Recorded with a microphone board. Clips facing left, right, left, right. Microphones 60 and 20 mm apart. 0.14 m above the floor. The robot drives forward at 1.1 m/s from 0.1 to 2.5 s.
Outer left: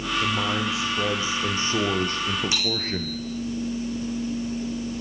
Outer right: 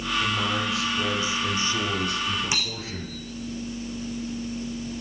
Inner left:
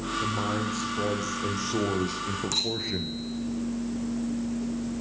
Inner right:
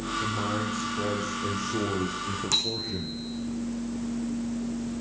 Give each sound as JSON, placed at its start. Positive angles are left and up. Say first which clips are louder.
{"t": 0.2, "sound": "a man speaking", "louder": "outer left 2 dB, inner left 1 dB", "side_deg": 20, "distance_m": 4.0}
{"t": 2.5, "sound": "a bicycle bell", "louder": "outer left 4 dB, inner right 2 dB", "side_deg": -20, "distance_m": 6.0}